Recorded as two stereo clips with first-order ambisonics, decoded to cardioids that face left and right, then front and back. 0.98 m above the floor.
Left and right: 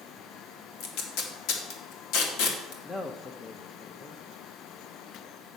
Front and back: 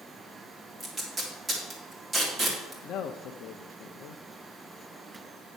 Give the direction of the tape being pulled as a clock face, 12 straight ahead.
9 o'clock.